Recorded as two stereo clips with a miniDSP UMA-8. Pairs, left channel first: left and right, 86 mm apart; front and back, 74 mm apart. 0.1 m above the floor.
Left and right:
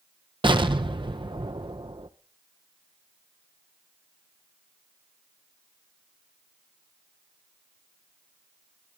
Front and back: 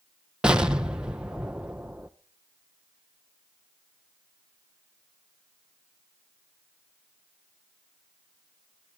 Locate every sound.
0.4 s an explosion: 100° right, 1.0 m